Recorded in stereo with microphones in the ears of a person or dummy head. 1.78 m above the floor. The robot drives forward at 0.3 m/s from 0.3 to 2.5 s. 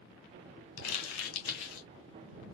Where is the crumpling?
85° left, 1.5 m; by 1.9 s 75° left (ahead or behind), 1.6 m.